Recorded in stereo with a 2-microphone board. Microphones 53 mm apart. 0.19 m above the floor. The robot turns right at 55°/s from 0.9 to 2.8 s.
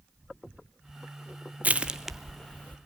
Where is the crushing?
30° right (ahead or behind), 0.9 m; by 2.8 s 30° left (ahead or behind), 0.9 m.